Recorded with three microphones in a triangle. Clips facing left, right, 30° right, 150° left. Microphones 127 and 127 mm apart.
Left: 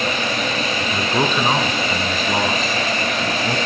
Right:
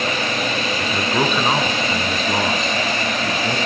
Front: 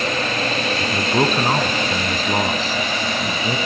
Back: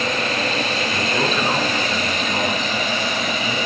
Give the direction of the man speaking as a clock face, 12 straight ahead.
12 o'clock.